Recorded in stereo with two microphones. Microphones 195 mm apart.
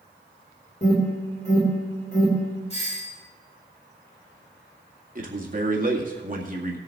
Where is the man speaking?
45° right (ahead or behind), 2 m.